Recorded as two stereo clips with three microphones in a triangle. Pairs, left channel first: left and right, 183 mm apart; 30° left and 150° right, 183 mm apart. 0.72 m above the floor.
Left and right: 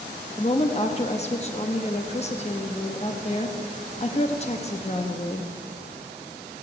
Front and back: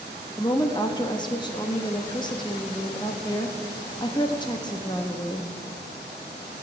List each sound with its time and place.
0.4 s a woman speaking: 80° left, 0.8 m